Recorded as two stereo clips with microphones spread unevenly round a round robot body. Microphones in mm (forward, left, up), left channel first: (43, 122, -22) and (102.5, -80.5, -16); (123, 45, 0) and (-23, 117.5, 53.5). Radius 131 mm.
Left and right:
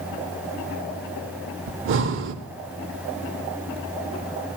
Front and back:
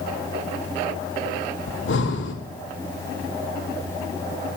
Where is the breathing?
75° right, 0.8 m.